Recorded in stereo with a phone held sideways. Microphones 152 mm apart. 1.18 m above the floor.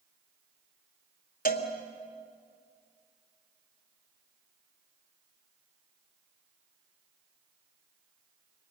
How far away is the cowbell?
About 2.5 m.